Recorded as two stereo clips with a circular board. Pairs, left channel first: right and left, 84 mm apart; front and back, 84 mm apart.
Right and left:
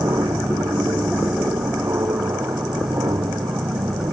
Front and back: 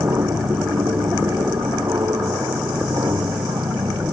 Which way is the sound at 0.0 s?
135° left.